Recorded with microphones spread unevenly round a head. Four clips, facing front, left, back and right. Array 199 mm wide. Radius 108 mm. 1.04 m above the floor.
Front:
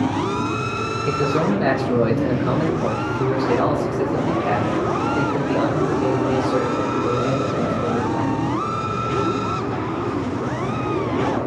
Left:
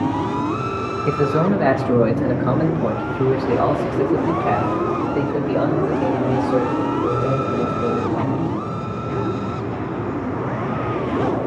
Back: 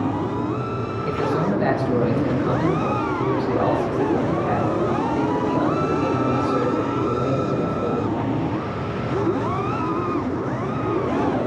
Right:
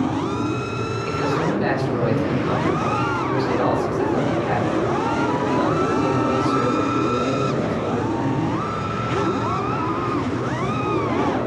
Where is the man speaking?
70° left, 1.2 m; by 8.5 s 85° left, 8 m.